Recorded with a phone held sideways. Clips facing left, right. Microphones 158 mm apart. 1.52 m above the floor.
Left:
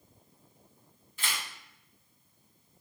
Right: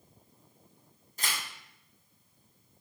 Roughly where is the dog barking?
No dog barking in this recording.